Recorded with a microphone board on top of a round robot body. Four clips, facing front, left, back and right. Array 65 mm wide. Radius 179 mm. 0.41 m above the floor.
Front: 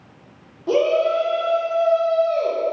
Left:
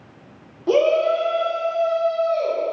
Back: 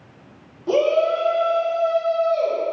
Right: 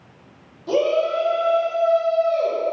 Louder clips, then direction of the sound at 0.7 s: Left 3 dB, even; 85° left.